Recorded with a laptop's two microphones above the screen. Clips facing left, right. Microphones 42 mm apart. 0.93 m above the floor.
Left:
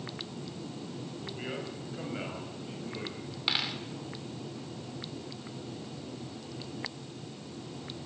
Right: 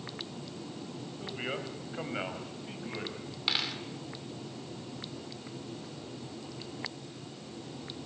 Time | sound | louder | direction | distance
1.2 | a man speaking | right 3 dB | 30° right (ahead or behind) | 5 m
3.5 | a dropped coin | left 1 dB | 5° left (ahead or behind) | 1.4 m